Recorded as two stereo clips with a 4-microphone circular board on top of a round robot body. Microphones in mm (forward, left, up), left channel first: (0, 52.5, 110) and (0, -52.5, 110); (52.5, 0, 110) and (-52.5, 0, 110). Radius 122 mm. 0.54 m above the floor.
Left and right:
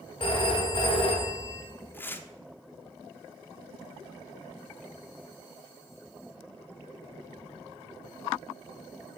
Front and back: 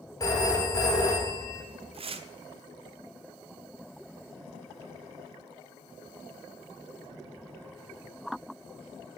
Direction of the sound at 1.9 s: 160° left.